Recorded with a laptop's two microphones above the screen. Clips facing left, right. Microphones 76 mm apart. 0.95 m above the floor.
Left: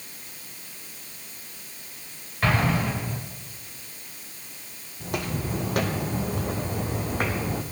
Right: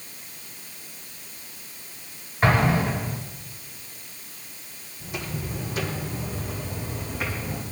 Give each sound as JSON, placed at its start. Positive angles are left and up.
{"t": 2.4, "sound": "an explosion", "side_deg": -25, "distance_m": 4.5}
{"t": 5.0, "sound": "footsteps", "side_deg": 60, "distance_m": 1.9}